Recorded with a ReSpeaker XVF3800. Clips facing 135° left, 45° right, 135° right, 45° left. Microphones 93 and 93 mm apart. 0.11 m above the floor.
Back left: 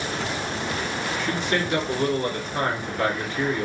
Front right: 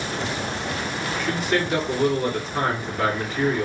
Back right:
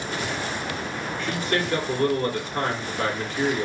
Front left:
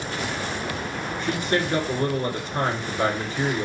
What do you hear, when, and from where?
1.2 s a man speaking: 5° left, 1.5 m